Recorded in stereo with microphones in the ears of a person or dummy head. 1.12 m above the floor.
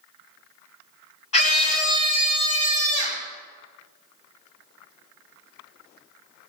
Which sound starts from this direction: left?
A scream, at 1.3 s.